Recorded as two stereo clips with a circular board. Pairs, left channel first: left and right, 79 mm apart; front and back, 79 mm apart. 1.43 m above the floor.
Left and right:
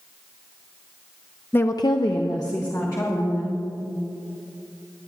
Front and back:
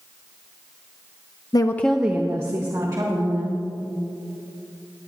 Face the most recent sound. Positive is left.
turn(degrees=140)